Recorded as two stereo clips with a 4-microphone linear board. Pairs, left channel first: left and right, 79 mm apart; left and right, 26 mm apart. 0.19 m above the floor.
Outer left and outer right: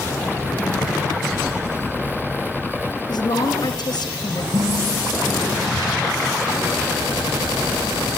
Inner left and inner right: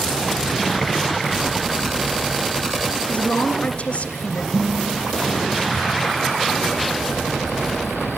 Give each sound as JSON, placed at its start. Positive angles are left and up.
{"t": 3.1, "sound": "a woman speaking", "side_deg": 60, "distance_m": 2.5}
{"t": 4.5, "sound": "dishes clattering", "side_deg": -70, "distance_m": 4.5}